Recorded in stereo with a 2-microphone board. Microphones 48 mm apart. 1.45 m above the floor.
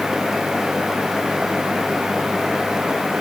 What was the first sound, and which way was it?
Only background noise.